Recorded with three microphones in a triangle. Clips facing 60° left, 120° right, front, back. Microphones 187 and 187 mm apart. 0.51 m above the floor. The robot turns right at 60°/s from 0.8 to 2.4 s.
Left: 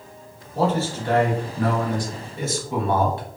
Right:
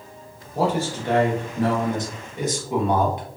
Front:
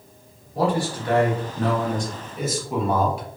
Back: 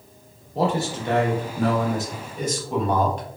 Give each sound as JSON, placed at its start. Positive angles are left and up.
{"t": 0.6, "sound": "a man speaking", "azimuth_deg": -170, "distance_m": 0.8}